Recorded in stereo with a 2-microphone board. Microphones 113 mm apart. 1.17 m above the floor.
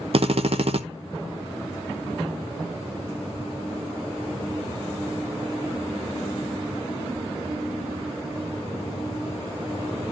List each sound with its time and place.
0.1 s a drill: 60° right (ahead or behind), 1.0 m